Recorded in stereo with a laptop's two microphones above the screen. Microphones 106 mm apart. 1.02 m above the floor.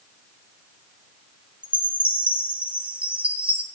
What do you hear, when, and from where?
1.6 s a chime: 10° right (ahead or behind), 0.8 m